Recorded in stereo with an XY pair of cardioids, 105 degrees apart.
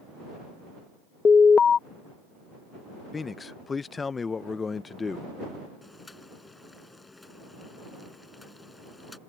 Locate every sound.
1.2 s an alarm: 35° left
3.1 s a man speaking: 30° left
5.8 s boiling: 15° left